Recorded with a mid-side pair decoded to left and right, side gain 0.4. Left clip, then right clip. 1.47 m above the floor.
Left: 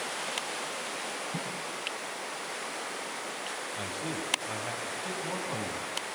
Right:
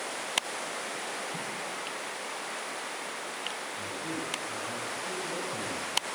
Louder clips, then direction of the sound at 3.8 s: Even; 70° left.